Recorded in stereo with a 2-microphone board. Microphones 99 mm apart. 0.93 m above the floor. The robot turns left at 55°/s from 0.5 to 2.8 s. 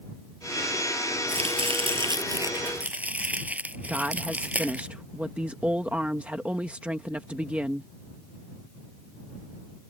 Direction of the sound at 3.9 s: 15° right (ahead or behind).